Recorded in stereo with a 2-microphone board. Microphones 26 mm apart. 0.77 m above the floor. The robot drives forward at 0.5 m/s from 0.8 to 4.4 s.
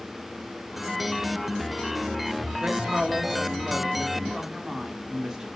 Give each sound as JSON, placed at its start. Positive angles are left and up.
{"t": 2.6, "sound": "a woman speaking", "side_deg": -35, "distance_m": 1.7}